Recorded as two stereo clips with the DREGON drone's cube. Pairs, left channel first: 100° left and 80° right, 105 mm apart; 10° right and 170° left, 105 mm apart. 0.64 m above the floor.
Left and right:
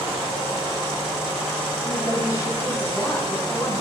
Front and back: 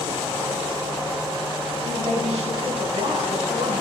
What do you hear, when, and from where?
1.9 s a woman speaking: 160° left, 5.5 m